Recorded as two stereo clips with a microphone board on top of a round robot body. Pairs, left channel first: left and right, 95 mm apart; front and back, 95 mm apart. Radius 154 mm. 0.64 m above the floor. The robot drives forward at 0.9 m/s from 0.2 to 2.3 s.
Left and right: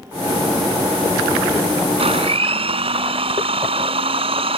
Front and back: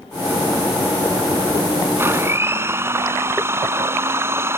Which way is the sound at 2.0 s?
115° right.